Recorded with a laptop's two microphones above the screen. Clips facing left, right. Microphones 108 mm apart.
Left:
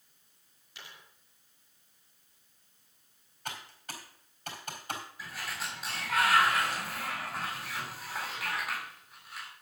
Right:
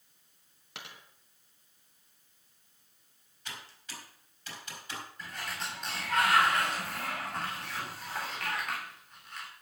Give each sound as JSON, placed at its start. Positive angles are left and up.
{"t": 0.8, "sound": "a dropped coin", "side_deg": -70, "distance_m": 2.5}
{"t": 3.5, "sound": "typing on a keyboard", "side_deg": 55, "distance_m": 4.5}
{"t": 5.2, "sound": "a sliding door", "side_deg": 5, "distance_m": 3.5}